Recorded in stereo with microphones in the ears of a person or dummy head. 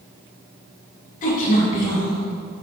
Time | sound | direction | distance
1.2 | a woman speaking | 45° left (ahead or behind) | 2.5 m